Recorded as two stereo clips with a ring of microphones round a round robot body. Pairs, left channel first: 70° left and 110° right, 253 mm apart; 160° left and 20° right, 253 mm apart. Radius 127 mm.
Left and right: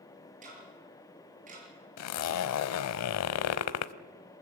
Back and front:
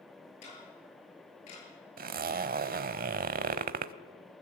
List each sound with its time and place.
0.4 s ticking: 175° right, 7.5 m
2.0 s a zipper: 35° left, 0.7 m